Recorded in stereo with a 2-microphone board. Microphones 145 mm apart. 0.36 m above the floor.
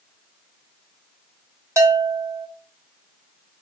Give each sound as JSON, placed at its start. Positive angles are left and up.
{"t": 1.8, "sound": "a bell", "side_deg": -20, "distance_m": 0.8}